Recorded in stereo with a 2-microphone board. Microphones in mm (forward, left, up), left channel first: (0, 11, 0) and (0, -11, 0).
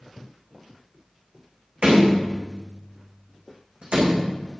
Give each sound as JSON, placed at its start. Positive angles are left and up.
{"t": 1.8, "sound": "a door slam", "side_deg": -70, "distance_m": 6.5}